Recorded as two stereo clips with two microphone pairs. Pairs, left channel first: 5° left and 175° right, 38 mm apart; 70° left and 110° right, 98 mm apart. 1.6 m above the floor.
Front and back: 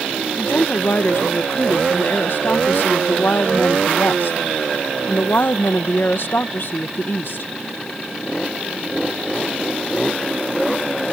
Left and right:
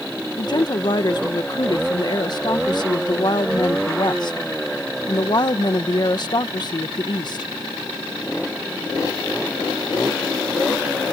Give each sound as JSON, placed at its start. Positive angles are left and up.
{"t": 0.4, "sound": "a woman speaking", "azimuth_deg": 30}